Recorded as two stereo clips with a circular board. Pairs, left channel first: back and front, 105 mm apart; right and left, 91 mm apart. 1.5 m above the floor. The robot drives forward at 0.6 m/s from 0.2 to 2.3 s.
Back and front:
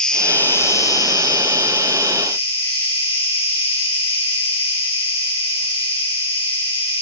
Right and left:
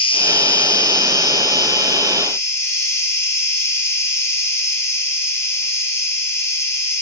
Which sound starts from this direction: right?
An insect, at 0.0 s.